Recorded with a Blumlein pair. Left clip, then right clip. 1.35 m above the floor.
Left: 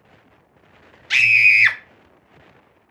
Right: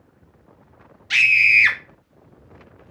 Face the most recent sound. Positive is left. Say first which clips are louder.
# left 1 dB
turn(degrees=5)